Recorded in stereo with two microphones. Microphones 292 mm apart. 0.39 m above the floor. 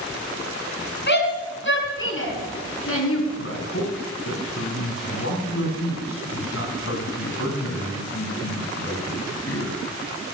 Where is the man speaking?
50° left (ahead or behind), 3 m.